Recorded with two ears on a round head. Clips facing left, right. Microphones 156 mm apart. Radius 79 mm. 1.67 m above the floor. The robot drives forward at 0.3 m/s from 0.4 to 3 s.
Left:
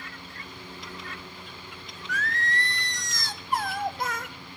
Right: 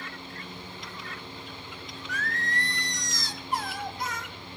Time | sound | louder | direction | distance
2.1 | singing | left 3 dB | 65° left (ahead or behind) | 0.6 m